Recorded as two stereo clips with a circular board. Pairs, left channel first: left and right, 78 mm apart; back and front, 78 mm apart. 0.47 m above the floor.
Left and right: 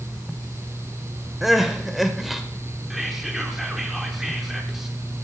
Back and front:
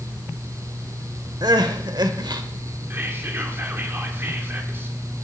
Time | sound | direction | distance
1.4 | crying | 5° right | 1.0 m
2.9 | whispering | 5° right | 1.3 m